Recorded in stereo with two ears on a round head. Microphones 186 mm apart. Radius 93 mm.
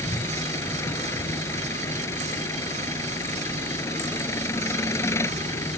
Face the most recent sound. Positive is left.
turn(degrees=15)  # may be behind; listen again after turning